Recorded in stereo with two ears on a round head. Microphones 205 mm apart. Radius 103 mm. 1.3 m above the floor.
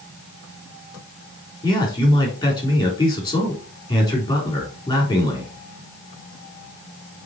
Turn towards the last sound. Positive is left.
turn(degrees=15)  # may be behind; listen again after turning